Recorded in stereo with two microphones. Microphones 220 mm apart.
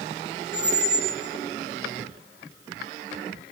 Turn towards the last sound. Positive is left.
turn(degrees=-50)  # may be behind; listen again after turning